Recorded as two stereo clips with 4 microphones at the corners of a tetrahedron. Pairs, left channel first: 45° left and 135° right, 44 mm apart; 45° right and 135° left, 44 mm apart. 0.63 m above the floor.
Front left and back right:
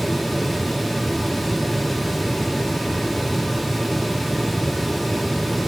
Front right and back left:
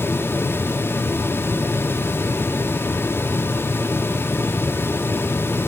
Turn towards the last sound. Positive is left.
No sound to turn to.